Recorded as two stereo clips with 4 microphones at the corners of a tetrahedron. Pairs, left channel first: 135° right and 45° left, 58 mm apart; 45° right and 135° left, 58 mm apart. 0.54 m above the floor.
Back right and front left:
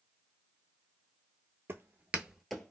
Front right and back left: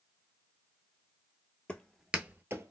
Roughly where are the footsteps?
Ahead.